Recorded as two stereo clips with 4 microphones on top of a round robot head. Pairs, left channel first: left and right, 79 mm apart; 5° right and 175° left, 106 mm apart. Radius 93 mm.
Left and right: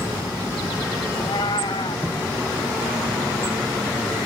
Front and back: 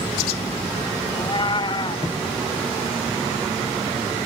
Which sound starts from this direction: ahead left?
A cat meowing, at 1.1 s.